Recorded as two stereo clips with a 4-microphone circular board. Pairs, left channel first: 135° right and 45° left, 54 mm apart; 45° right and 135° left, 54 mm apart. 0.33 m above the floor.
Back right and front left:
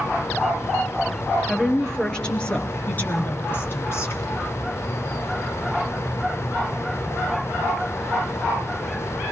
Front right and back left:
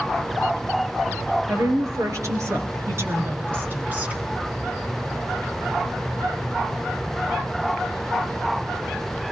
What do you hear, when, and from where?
1.5 s a woman speaking: 145° left, 5 m; by 4.2 s 160° right, 3.5 m